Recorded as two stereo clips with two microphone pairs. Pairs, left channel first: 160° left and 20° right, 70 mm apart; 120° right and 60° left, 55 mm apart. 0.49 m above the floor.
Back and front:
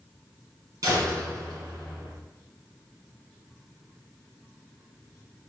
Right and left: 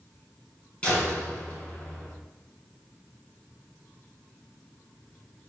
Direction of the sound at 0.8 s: 50° right.